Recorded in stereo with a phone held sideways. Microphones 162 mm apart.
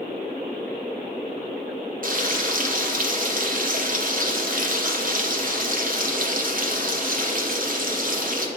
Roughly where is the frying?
Right.